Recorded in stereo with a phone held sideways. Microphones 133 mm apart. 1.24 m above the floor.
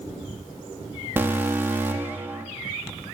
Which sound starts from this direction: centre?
An alarm, at 1.2 s.